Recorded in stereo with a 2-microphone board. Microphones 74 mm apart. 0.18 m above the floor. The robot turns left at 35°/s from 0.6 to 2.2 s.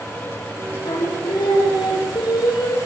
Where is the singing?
125° left, 6 m; by 2.8 s 80° left, 6 m.